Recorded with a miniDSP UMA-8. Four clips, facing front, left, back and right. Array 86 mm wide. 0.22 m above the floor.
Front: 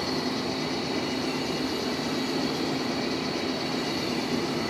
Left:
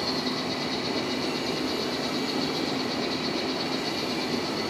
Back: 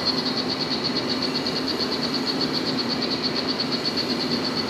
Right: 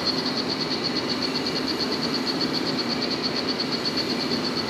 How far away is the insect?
About 2.5 m.